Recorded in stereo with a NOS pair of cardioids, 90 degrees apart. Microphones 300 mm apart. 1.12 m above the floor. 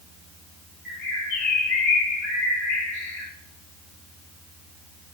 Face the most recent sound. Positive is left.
turn(degrees=35)